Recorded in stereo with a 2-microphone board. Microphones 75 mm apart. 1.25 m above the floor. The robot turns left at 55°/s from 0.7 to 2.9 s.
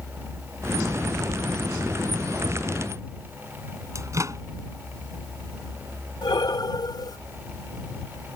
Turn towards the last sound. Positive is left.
turn(degrees=70)  # may be behind; listen again after turning